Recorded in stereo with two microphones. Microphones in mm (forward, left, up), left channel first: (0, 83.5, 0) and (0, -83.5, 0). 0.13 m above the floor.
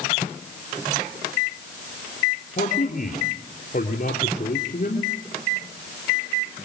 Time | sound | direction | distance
2.6 | a man speaking | 50° left (ahead or behind) | 3 m